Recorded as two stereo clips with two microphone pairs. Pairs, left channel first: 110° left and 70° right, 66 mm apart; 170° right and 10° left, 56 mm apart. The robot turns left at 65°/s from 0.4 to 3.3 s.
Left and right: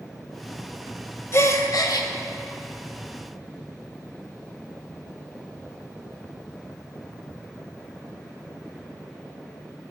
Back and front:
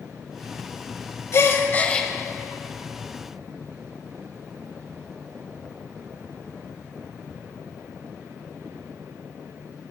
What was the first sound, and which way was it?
A gasp, 160° left.